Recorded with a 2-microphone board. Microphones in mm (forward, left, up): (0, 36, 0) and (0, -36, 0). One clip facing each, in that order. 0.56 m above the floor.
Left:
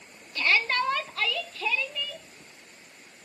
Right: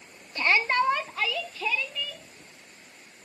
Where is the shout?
25° right (ahead or behind), 0.8 m; by 2.2 s centre (ahead or behind), 1.8 m.